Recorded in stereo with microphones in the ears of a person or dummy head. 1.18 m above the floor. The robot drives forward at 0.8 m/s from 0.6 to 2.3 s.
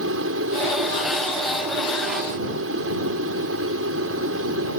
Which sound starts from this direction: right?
An aircraft, at 0.0 s.